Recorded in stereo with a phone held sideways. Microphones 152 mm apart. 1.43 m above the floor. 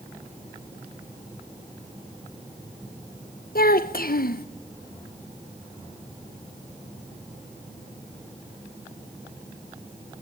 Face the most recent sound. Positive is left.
turn(degrees=75)  # may be behind; listen again after turning